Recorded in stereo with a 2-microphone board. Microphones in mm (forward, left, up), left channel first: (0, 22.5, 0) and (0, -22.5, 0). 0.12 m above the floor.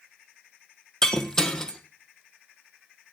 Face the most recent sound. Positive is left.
turn(degrees=15)  # may be behind; listen again after turning